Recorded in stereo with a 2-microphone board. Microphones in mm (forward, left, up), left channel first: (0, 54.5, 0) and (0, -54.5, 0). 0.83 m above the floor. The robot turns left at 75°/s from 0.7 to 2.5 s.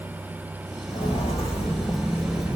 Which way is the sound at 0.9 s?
50° left (ahead or behind).